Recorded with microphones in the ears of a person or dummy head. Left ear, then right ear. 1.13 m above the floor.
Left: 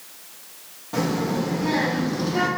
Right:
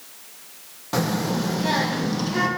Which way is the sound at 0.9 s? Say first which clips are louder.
Even; 70° right (ahead or behind).